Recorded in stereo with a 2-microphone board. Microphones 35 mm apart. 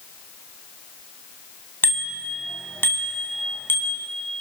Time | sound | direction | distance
1.8 | a bicycle bell | 65° left (ahead or behind) | 2.5 m